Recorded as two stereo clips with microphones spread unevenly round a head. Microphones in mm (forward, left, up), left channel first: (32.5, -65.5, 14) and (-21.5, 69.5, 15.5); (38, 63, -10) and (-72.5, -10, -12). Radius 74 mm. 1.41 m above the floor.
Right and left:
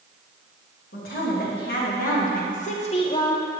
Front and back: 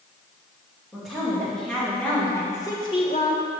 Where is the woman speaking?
55° right, 2.5 m; by 3.5 s straight ahead, 0.9 m.